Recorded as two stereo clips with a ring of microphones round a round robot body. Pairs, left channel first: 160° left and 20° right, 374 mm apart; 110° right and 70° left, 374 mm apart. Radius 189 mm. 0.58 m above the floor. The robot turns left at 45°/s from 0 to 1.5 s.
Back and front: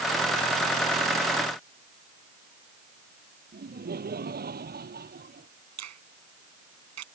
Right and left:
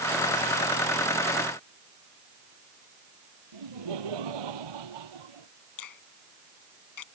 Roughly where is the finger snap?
Right.